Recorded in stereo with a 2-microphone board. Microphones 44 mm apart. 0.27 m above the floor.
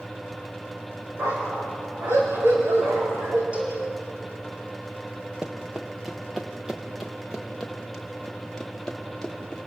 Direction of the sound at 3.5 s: 25° right (ahead or behind).